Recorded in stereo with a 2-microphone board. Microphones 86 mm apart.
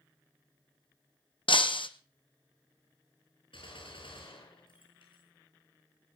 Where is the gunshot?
80° left, 9 m.